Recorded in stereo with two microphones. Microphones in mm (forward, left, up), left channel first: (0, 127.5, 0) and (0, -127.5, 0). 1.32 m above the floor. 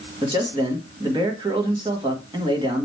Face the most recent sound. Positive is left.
turn(degrees=-20)  # may be behind; listen again after turning